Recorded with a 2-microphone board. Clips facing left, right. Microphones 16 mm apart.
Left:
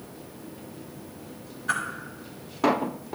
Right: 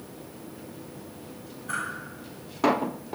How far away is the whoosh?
About 1.8 m.